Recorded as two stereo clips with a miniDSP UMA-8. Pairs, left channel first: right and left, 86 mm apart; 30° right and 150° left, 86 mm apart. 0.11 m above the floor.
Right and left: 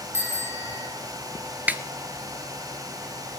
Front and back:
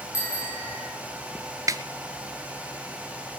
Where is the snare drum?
150° left, 1.1 m.